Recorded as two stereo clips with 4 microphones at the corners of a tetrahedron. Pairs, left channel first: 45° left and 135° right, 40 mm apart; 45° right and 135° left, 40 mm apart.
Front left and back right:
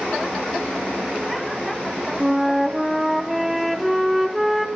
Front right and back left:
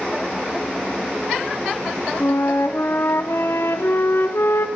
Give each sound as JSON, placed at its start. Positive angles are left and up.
{"t": 2.2, "sound": "a flute", "azimuth_deg": -45, "distance_m": 2.5}